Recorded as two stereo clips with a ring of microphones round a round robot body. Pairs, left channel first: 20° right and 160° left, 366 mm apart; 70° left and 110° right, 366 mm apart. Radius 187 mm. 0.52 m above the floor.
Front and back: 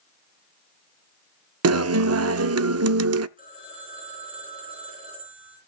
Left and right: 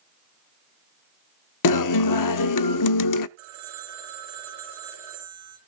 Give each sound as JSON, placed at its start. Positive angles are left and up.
{"t": 1.6, "sound": "a guitar", "azimuth_deg": 105, "distance_m": 0.6}
{"t": 3.4, "sound": "a phone ringing", "azimuth_deg": -125, "distance_m": 7.0}